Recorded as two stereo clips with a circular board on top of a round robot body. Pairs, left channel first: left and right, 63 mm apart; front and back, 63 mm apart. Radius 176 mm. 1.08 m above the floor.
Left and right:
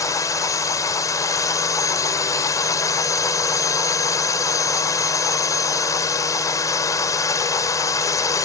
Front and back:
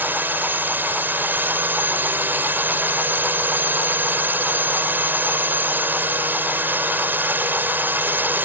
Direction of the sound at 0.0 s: 120° left.